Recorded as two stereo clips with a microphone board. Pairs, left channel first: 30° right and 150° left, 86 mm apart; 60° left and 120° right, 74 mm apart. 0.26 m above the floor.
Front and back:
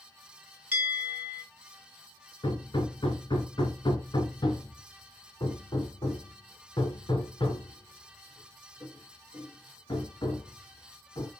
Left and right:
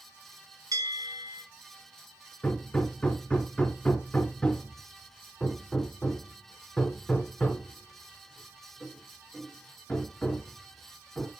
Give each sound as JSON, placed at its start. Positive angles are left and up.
{"t": 0.7, "sound": "a bell", "azimuth_deg": -140, "distance_m": 3.5}
{"t": 2.4, "sound": "hammering", "azimuth_deg": -15, "distance_m": 1.5}